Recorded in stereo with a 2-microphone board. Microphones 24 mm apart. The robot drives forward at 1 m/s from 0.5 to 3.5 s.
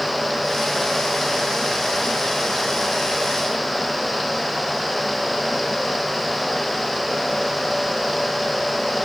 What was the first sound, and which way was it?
Only background noise.